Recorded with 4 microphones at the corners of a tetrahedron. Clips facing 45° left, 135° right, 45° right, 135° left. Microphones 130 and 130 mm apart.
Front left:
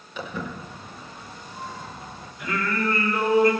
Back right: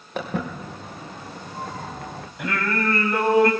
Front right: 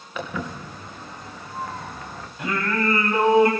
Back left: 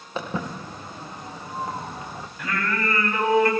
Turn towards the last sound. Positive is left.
turn(degrees=-110)